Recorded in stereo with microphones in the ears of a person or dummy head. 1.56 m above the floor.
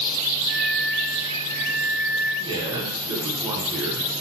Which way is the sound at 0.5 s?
45° left (ahead or behind).